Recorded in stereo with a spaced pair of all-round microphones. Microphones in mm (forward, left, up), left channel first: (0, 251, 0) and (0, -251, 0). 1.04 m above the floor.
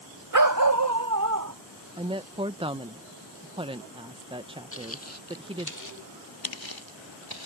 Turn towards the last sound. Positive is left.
turn(degrees=50)  # may be behind; listen again after turning